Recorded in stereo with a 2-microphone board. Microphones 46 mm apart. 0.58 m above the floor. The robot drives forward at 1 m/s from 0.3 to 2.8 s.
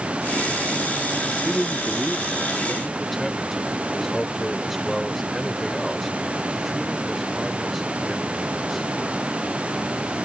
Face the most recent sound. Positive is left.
turn(degrees=0)  # may be behind; listen again after turning